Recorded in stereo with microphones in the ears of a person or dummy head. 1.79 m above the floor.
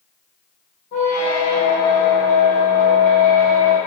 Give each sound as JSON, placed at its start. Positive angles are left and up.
{"t": 0.9, "sound": "a squeak", "side_deg": 25, "distance_m": 0.9}